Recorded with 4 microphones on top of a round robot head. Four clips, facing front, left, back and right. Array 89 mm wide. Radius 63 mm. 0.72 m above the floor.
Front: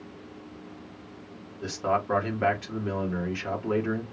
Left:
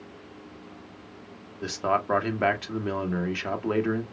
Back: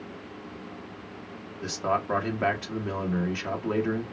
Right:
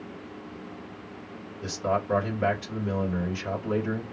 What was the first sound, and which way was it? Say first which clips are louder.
A man speaking: left 2 dB, front 1 dB; 95° left.